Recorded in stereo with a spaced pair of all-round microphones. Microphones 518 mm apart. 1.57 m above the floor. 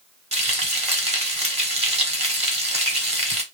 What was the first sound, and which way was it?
Frying, 15° right (ahead or behind).